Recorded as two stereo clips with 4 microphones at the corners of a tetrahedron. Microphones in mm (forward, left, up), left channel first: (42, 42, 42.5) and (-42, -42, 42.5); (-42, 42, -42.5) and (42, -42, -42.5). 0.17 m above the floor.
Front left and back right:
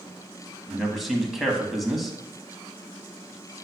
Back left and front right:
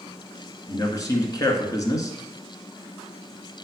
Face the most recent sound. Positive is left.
turn(degrees=140)